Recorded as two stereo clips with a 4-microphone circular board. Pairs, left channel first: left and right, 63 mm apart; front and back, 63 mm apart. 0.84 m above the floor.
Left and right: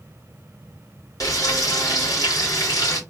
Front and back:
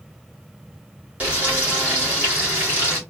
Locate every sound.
1.2 s frying: 115° left, 2.0 m